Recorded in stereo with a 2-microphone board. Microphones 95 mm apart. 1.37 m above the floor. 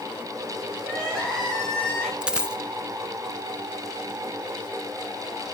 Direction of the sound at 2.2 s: 10° right (ahead or behind).